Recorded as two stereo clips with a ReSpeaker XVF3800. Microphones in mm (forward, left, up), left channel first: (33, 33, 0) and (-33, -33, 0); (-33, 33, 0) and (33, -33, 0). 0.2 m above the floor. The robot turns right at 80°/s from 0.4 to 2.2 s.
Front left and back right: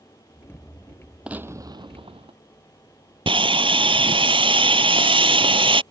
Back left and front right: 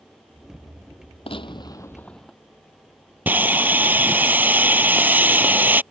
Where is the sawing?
115° right.